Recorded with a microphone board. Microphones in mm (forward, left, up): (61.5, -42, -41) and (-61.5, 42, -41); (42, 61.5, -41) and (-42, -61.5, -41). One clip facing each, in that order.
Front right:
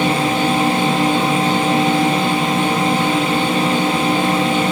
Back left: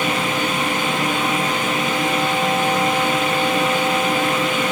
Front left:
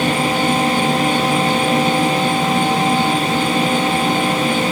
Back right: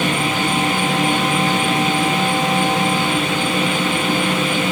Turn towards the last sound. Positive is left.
turn(degrees=30)